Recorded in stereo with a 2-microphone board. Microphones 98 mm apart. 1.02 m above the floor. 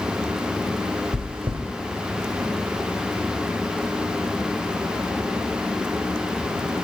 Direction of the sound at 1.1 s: 65° right (ahead or behind).